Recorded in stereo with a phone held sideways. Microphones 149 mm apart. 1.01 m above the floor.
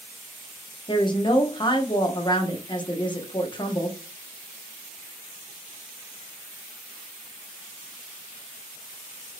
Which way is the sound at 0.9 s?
30° left (ahead or behind).